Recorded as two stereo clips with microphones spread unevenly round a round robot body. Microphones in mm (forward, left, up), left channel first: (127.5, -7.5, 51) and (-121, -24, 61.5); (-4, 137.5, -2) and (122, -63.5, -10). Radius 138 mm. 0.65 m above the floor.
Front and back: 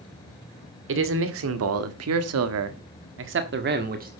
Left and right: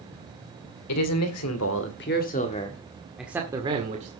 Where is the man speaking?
145° left, 2 m; by 4.1 s 120° right, 1.8 m.